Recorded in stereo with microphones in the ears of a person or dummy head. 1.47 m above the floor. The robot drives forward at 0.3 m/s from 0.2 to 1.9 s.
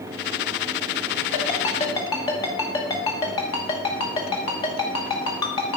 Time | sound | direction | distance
1.3 | a ringtone | 25° left (ahead or behind) | 0.9 m